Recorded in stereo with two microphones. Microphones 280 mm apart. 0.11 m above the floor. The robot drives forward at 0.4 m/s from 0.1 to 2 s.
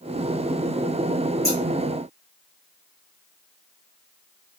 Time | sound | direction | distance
1.4 | scissors | 10° left (ahead or behind) | 1.8 m